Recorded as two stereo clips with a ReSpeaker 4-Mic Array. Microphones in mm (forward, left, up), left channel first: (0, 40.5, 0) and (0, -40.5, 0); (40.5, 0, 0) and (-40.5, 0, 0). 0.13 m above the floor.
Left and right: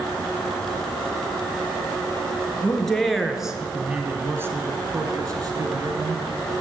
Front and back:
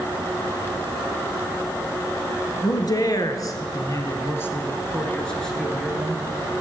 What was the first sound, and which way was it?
A man speaking, 10° left.